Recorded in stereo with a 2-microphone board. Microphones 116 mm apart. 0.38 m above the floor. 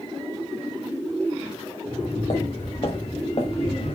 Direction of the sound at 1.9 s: 55° left (ahead or behind).